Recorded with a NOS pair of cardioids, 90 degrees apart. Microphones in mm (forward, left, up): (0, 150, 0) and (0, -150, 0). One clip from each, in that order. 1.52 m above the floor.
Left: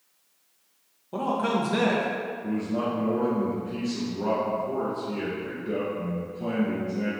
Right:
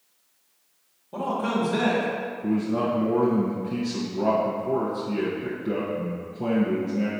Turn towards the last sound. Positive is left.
turn(degrees=-55)